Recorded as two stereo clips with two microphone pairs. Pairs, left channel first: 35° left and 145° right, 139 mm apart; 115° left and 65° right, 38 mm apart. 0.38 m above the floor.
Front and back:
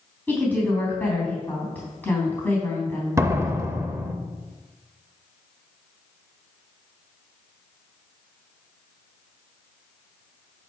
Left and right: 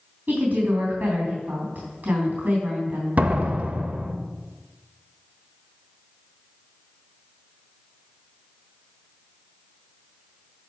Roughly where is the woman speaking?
Ahead right.